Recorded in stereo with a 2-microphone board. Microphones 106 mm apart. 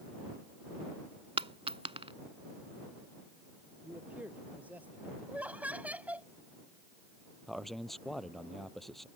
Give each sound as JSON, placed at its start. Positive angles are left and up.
{"t": 1.4, "sound": "a dropped coin", "side_deg": -65}
{"t": 3.8, "sound": "a man speaking", "side_deg": -15}
{"t": 5.3, "sound": "laughter", "side_deg": -15}
{"t": 7.5, "sound": "a man speaking", "side_deg": 0}